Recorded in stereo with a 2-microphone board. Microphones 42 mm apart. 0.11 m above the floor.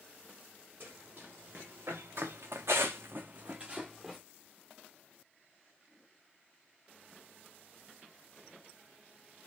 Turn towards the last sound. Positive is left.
turn(degrees=0)  # may be behind; listen again after turning